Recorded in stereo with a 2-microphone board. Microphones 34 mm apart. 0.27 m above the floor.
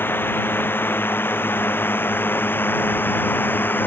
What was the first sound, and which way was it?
A drone, 85° left.